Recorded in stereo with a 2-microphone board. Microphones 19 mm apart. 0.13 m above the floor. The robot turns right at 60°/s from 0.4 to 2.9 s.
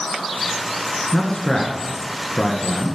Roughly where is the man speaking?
Left.